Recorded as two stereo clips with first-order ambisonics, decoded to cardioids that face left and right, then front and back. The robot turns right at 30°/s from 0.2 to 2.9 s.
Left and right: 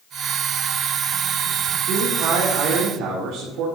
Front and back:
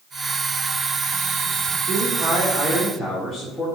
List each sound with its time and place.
1.9 s a man speaking: 120° right, 1.8 m; by 3.7 s 90° right, 1.8 m